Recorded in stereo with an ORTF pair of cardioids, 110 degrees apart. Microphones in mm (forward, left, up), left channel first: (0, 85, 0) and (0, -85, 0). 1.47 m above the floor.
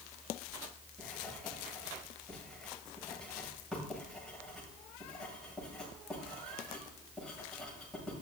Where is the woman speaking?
No woman speaking in this recording.